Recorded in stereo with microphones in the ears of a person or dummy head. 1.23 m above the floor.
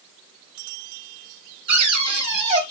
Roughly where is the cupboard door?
Right.